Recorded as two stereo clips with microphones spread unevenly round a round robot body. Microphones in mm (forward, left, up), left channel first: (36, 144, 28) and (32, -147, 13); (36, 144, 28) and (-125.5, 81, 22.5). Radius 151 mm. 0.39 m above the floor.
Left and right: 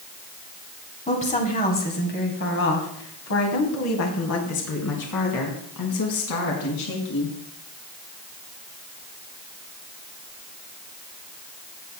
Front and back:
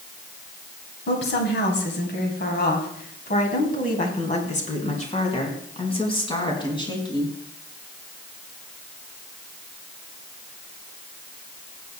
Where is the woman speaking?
20° left, 3 m; by 7.3 s 85° left, 4.5 m.